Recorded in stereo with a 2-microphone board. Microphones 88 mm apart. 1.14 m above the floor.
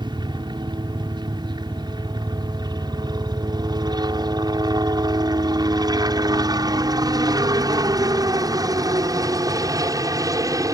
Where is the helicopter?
50° right (ahead or behind); by 10.8 s 40° right (ahead or behind).